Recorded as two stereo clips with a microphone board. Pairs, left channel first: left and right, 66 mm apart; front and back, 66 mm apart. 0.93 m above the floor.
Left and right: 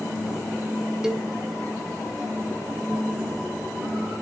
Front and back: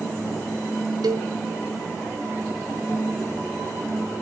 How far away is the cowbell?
About 0.7 m.